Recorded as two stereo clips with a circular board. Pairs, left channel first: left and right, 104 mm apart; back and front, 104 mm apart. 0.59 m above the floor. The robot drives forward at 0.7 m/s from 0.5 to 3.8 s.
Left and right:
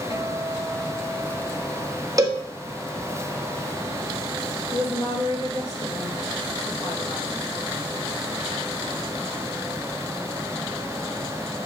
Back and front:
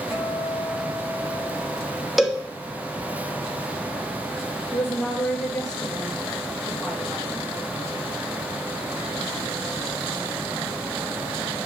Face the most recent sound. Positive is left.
turn(degrees=95)